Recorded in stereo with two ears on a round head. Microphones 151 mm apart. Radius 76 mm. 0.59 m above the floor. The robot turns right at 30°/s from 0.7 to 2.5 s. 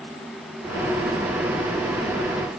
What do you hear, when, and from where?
Only background noise.